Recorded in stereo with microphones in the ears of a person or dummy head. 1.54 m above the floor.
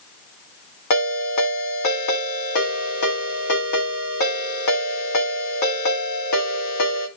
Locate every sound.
0.9 s a ringtone: 60° left (ahead or behind), 1.9 m